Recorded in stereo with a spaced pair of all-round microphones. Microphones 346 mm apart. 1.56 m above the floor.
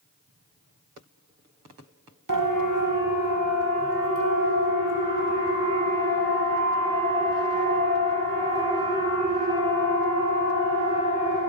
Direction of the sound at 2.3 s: 65° right (ahead or behind).